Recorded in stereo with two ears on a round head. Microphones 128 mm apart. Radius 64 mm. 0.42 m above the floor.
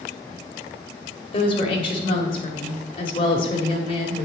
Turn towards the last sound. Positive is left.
turn(degrees=40)  # may be behind; listen again after turning